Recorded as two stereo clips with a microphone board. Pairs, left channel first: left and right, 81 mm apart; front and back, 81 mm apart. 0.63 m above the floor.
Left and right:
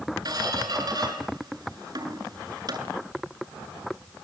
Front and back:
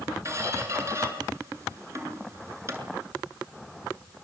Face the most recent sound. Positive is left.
turn(degrees=-125)